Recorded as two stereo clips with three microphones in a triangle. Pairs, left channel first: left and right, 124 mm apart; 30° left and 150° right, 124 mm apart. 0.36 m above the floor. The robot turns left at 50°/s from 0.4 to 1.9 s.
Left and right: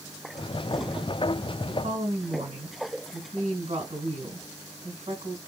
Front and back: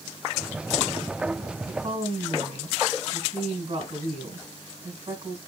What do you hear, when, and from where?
1.6 s a woman speaking: 100° right, 2 m; by 5.4 s 110° right, 2 m